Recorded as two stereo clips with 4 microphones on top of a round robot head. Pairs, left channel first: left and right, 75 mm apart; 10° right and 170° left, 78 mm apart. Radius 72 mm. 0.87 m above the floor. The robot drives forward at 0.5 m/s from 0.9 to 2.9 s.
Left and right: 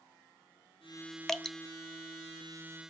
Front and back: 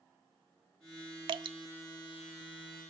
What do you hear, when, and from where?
1.3 s dripping: 175° left, 0.6 m